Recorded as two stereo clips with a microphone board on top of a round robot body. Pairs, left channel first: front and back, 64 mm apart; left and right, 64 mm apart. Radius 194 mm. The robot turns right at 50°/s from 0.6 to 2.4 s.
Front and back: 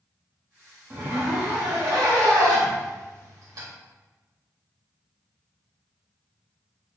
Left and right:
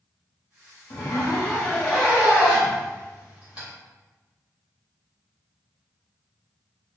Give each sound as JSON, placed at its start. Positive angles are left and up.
{"t": 0.9, "sound": "a zipper", "azimuth_deg": 120, "distance_m": 0.6}